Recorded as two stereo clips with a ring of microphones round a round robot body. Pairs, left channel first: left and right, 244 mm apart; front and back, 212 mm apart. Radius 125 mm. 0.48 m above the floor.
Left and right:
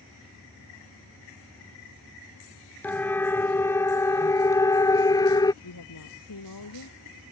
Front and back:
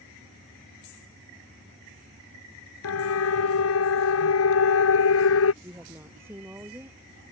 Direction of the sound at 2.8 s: 5° left.